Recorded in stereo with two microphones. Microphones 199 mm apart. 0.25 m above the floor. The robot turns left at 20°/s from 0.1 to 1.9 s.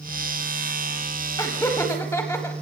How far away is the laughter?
About 1.3 m.